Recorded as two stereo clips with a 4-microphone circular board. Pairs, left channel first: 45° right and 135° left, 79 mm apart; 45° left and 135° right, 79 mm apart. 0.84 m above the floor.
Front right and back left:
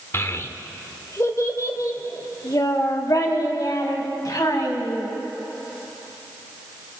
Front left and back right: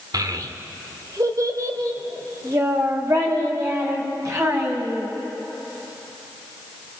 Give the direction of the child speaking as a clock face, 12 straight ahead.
3 o'clock.